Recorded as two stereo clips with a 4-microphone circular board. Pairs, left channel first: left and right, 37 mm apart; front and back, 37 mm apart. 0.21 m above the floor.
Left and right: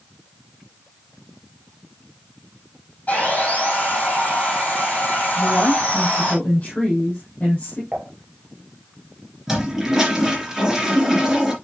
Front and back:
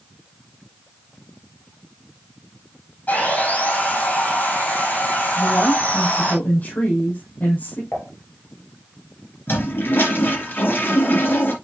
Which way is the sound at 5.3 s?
40° left.